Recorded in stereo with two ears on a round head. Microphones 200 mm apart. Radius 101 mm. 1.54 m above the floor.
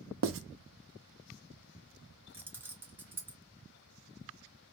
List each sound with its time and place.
0.2 s writing: 65° right (ahead or behind), 0.5 m
2.3 s keys jangling: 10° right (ahead or behind), 0.5 m